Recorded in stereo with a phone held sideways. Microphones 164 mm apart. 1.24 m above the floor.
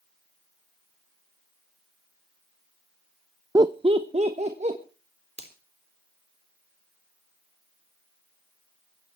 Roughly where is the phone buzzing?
I don't hear a phone buzzing.